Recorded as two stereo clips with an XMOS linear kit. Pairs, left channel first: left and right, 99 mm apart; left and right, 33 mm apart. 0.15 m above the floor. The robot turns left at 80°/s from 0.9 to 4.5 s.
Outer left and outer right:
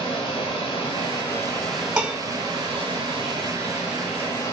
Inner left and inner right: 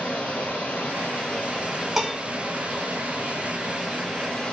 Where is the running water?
65° left, 1.7 m; by 4.5 s 135° left, 1.7 m.